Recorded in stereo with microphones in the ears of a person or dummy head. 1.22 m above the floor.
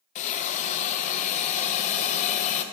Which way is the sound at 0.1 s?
45° left (ahead or behind).